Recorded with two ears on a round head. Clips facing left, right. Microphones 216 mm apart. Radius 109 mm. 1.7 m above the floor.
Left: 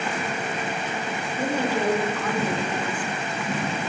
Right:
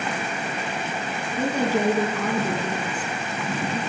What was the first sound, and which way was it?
A woman speaking, 85° right.